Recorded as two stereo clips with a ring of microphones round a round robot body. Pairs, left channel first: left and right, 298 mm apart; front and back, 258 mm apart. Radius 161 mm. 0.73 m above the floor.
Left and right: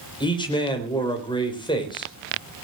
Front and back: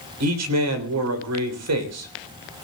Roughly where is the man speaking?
Behind.